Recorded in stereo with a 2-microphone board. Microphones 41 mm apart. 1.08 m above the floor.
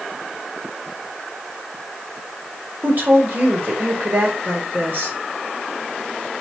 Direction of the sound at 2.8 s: 50° right (ahead or behind).